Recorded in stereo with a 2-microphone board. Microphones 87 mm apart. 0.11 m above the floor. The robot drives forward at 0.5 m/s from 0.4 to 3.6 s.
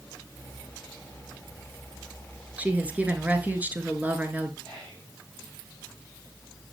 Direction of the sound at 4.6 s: 15° left (ahead or behind).